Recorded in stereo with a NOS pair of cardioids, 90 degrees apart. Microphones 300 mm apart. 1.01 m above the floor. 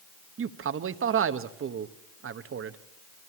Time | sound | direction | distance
0.4 | a man speaking | 45° right | 1.1 m